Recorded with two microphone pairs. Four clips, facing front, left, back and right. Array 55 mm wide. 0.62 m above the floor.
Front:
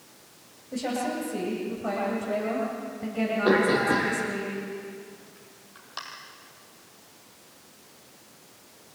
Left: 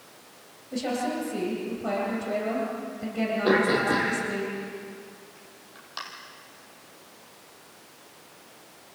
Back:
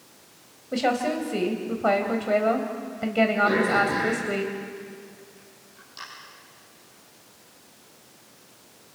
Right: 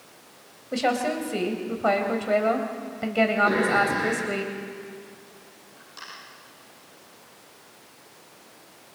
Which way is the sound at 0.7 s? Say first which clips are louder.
Right 4 dB, back 5 dB; 135° right.